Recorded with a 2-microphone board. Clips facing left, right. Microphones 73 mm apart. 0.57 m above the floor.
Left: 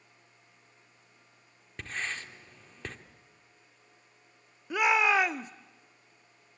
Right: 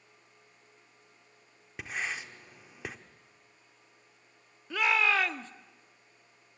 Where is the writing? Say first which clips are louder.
Right 1 dB; 10° right (ahead or behind), 1.3 m.